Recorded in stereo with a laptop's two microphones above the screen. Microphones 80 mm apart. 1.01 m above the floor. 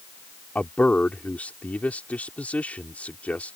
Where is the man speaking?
20° left (ahead or behind).